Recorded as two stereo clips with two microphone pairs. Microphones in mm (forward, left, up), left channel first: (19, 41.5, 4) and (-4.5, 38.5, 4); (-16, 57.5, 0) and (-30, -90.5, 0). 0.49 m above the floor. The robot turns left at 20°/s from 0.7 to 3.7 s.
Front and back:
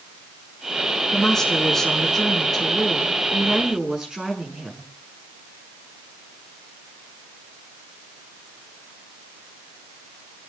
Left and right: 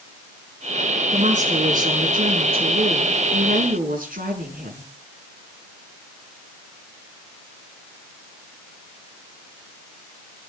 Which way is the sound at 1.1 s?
55° right.